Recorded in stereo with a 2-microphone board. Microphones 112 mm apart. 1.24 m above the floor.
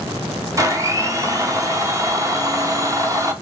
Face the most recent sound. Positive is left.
turn(degrees=-30)  # may be behind; listen again after turning